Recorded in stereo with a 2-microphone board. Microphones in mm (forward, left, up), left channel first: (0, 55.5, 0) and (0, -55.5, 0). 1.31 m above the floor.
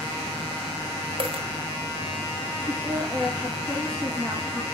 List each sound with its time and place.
1.2 s a dropped coin: 55° right (ahead or behind), 1.6 m
2.7 s a woman speaking: 5° left (ahead or behind), 2 m